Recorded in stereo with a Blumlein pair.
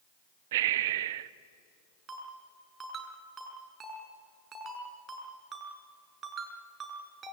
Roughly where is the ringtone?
Ahead right.